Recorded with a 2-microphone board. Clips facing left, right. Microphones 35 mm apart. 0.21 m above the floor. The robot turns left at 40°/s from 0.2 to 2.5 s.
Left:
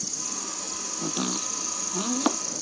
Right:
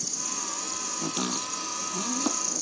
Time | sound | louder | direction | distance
0.0 | an insect | right 1 dB | 95° right | ?
1.0 | chopping | left 1 dB | 5° right (ahead or behind) | ?